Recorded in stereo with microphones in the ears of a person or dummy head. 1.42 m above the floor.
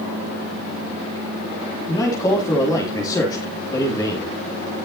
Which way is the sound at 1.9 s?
20° left (ahead or behind).